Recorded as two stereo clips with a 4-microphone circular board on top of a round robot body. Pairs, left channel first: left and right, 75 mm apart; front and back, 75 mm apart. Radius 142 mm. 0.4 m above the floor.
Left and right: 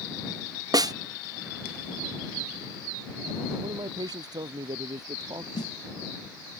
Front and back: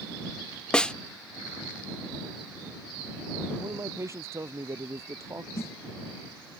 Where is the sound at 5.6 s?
60° left.